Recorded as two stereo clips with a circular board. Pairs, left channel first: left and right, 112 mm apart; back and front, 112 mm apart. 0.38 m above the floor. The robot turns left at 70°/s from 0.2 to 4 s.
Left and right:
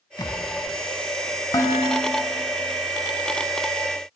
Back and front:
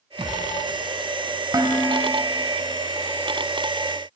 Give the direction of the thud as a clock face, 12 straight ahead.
11 o'clock.